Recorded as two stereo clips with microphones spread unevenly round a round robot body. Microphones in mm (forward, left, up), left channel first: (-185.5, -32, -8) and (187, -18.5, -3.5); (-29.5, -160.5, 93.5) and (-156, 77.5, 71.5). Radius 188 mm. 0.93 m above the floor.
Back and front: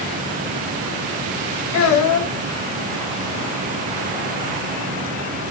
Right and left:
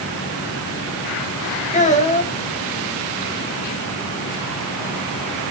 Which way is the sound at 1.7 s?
130° right.